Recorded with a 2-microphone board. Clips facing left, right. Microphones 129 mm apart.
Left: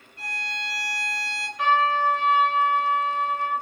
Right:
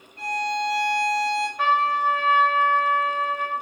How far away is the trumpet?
About 1.5 m.